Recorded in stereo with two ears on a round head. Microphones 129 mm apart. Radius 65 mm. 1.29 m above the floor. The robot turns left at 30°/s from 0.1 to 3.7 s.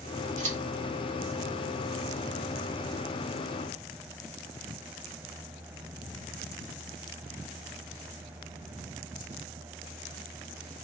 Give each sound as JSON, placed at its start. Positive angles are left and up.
{"t": 0.4, "sound": "scissors", "side_deg": -55, "distance_m": 1.9}